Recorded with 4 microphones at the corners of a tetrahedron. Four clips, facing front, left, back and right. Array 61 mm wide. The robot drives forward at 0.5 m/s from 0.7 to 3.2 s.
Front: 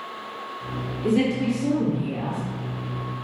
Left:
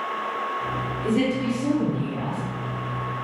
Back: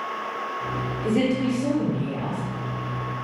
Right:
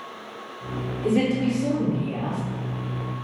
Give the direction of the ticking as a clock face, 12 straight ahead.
I don't hear ticking.